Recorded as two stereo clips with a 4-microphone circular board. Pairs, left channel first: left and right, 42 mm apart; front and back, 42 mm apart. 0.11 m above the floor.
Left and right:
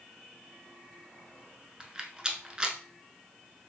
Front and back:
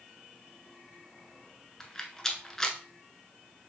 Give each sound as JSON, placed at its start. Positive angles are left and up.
{"t": 1.8, "sound": "a rattle", "azimuth_deg": -50, "distance_m": 0.9}